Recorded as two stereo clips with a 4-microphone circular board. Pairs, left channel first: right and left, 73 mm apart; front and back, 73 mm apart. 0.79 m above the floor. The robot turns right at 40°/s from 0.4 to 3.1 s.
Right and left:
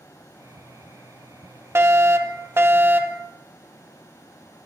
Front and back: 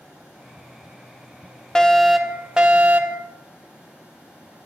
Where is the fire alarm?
75° left, 2.5 m; by 3.2 s 130° left, 2.5 m.